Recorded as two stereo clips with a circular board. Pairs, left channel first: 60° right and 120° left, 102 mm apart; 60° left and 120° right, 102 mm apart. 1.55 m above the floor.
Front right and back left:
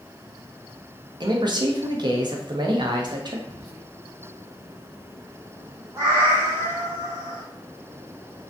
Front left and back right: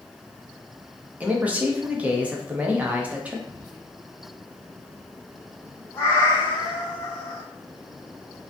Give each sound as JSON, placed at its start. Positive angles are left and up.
{"t": 1.2, "sound": "a man speaking", "azimuth_deg": 165, "distance_m": 0.5}
{"t": 3.5, "sound": "whispering", "azimuth_deg": 165, "distance_m": 0.5}
{"t": 6.0, "sound": "a cat meowing", "azimuth_deg": 95, "distance_m": 0.8}